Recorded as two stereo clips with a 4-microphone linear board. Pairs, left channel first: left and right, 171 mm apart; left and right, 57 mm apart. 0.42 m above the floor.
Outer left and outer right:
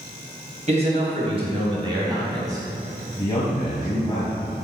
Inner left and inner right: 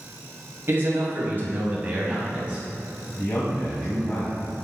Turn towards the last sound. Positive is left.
turn(degrees=30)  # may be behind; listen again after turning